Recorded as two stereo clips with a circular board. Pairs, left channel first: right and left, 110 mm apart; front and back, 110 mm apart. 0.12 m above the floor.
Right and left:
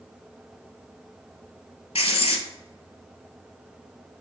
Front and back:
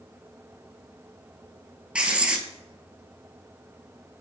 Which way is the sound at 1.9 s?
100° right.